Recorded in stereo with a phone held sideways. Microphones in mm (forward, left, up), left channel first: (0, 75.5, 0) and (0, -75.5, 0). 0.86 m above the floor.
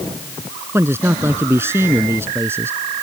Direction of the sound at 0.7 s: 15° right (ahead or behind).